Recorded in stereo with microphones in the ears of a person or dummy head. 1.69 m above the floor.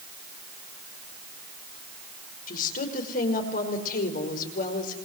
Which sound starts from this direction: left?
A woman speaking, at 2.5 s.